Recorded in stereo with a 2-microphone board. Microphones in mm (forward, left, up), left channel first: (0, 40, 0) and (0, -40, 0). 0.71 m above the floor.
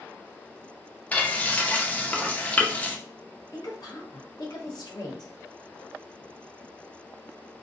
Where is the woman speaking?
60° left (ahead or behind), 0.9 m.